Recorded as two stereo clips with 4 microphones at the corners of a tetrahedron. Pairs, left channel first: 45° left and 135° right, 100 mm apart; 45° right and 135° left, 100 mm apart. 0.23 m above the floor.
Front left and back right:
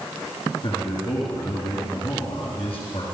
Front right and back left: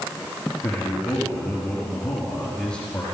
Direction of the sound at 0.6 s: 35° left.